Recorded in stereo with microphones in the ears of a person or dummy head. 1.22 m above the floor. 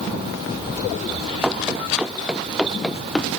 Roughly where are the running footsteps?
Centre.